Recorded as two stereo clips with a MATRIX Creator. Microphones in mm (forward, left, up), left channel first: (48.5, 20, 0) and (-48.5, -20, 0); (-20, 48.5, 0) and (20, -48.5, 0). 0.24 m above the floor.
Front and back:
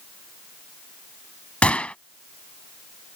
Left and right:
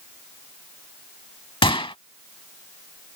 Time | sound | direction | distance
1.6 | a gunshot | 100° left | ?